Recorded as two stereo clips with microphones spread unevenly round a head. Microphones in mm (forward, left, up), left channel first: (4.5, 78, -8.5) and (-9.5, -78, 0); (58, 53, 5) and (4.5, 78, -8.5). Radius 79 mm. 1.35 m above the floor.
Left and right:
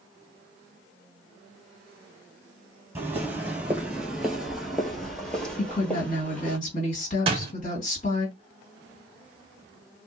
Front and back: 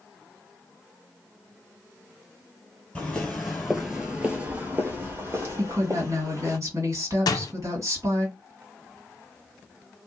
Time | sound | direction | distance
3.0 | footsteps | 40° right | 1.5 m
5.6 | a woman speaking | 130° left | 2 m
7.3 | a door slam | 40° right | 0.7 m